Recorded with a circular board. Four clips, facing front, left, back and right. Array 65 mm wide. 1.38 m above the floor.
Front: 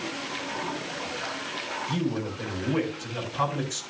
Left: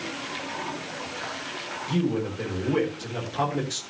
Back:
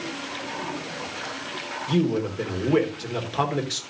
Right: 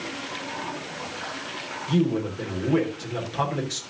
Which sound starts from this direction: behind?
A man speaking, at 1.9 s.